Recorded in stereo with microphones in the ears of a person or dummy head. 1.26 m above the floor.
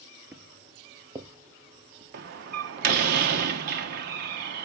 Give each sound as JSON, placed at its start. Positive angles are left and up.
{"t": 0.3, "sound": "footsteps", "side_deg": -5, "distance_m": 1.3}
{"t": 2.1, "sound": "a door slam", "side_deg": -50, "distance_m": 1.3}